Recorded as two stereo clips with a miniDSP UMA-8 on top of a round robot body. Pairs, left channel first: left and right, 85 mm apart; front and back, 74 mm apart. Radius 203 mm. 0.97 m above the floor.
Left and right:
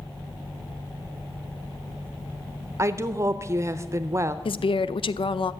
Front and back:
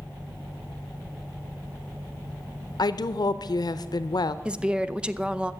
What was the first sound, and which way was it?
A woman speaking, 30° right.